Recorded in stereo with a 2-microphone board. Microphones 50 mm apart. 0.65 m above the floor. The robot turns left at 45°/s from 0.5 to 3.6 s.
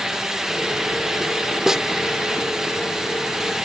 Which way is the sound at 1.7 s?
5° right (ahead or behind).